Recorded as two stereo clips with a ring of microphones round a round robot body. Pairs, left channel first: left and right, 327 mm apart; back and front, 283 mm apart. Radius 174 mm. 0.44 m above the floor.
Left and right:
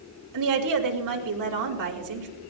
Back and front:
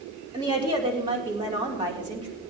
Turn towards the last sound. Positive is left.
turn(degrees=-75)